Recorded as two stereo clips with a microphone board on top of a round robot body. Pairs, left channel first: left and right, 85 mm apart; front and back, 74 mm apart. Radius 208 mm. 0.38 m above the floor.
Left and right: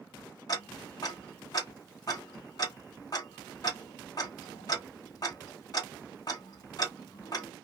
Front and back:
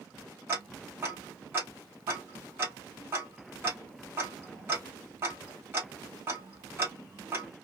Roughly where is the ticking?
Behind left.